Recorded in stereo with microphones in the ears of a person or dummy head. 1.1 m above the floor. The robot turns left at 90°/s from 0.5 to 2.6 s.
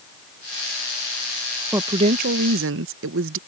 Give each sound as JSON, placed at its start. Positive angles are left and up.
{"t": 1.7, "sound": "a woman speaking", "azimuth_deg": -10}